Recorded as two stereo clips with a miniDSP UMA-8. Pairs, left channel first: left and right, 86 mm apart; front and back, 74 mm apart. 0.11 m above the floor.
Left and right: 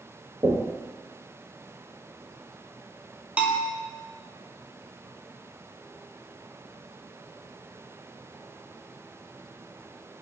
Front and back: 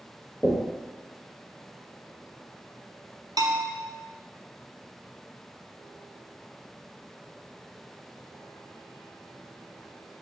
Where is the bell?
165° right, 0.6 m.